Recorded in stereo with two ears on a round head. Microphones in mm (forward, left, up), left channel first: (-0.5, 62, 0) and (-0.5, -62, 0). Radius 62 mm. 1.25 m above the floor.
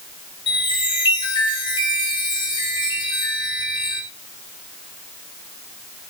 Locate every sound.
0.5 s a chime: 35° left (ahead or behind), 5.5 m